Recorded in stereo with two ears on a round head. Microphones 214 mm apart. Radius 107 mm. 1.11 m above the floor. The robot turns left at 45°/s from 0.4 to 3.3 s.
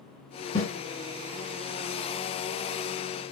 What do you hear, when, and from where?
0.6 s a snare drum: 25° left (ahead or behind), 2.5 m; by 0.7 s 15° left (ahead or behind), 2.5 m